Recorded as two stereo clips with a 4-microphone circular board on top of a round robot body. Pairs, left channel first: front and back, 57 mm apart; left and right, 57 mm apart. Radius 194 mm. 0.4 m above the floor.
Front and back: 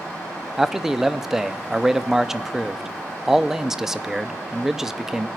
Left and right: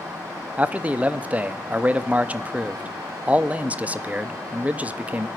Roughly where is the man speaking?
Right.